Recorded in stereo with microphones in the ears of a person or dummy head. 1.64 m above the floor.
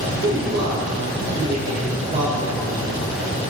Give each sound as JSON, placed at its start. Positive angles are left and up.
{"t": 0.2, "sound": "a man speaking", "side_deg": -45, "distance_m": 2.0}